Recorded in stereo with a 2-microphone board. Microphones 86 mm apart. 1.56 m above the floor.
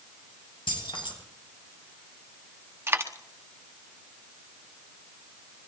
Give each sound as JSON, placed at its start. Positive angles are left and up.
{"t": 0.7, "sound": "keys jangling", "side_deg": 80, "distance_m": 7.0}
{"t": 2.9, "sound": "a dropped coin", "side_deg": -30, "distance_m": 1.2}